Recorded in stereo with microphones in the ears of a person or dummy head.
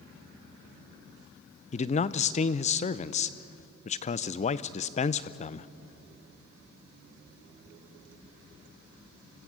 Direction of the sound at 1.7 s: 30° left (ahead or behind).